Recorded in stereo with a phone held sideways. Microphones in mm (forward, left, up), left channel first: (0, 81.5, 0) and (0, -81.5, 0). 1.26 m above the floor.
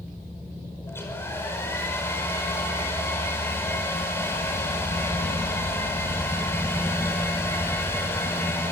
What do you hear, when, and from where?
0.9 s a hair dryer: 15° left (ahead or behind), 5.5 m